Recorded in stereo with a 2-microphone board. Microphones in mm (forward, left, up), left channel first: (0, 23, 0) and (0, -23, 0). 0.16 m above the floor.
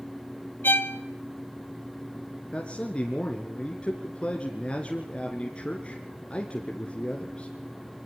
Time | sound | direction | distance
0.6 | a violin | 50° left (ahead or behind) | 1.2 m
2.5 | a man speaking | 25° left (ahead or behind) | 2.5 m